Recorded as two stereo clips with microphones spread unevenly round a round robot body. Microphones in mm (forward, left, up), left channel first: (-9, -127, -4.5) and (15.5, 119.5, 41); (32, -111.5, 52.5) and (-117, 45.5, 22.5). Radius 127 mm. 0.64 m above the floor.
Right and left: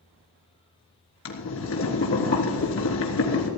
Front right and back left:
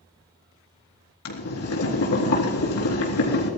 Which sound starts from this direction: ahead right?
Boiling, at 1.2 s.